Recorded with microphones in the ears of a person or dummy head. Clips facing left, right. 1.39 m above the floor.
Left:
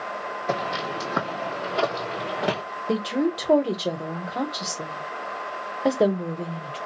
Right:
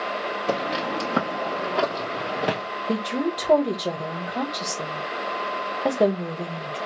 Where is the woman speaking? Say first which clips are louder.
Left 2 dB; 5° left (ahead or behind), 0.9 m.